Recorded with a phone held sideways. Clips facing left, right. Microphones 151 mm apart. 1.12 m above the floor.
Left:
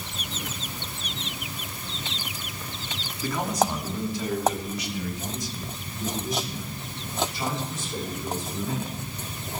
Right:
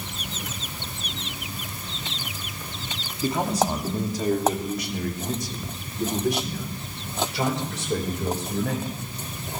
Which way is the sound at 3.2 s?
25° right (ahead or behind).